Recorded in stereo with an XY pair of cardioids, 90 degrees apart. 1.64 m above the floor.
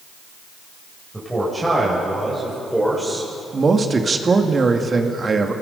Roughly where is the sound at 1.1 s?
Ahead.